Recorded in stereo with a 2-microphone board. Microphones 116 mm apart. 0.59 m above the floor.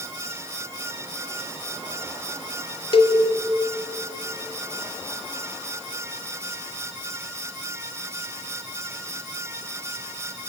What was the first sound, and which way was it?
A cowbell, 50° left (ahead or behind).